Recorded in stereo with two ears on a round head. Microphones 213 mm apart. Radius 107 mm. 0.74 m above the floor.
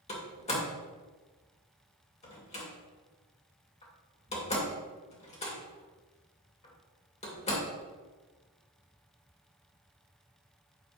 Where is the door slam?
25° left (ahead or behind), 2 m.